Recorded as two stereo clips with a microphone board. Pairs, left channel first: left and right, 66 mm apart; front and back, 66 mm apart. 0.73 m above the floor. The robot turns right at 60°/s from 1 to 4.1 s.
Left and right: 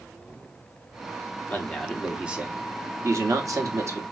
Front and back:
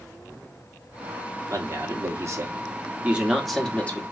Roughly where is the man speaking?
Behind left.